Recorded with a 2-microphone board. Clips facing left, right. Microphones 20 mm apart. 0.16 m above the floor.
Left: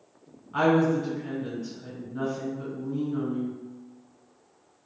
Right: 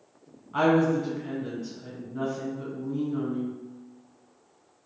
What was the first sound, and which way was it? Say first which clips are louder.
A woman speaking: even; centre (ahead or behind).